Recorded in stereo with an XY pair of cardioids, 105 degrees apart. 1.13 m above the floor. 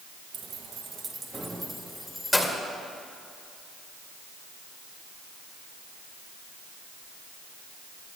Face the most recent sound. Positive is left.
turn(degrees=10)